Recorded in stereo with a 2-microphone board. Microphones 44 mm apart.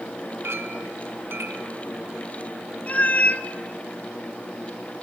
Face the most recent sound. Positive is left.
turn(degrees=35)  # may be behind; listen again after turning